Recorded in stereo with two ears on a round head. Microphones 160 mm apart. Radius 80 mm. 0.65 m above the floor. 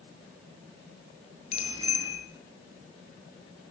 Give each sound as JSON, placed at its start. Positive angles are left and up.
{"t": 1.5, "sound": "a bicycle bell", "side_deg": 35, "distance_m": 7.5}